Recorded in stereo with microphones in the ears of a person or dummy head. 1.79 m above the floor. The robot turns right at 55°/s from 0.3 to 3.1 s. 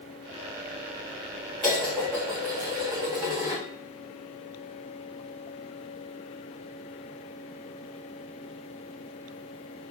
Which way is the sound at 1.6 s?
170° left.